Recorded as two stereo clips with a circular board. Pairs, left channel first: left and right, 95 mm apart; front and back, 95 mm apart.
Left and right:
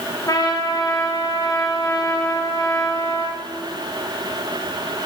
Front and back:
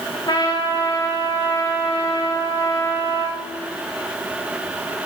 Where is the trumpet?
40° left, 6.5 m.